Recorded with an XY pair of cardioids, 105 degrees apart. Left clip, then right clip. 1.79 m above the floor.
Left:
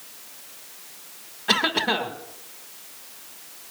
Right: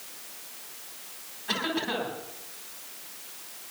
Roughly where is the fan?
I don't hear a fan.